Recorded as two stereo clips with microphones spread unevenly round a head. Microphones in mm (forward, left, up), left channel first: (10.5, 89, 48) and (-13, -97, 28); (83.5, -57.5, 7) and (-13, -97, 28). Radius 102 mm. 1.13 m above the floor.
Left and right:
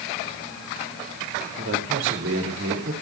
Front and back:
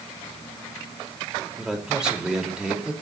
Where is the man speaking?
75° right, 4.5 m.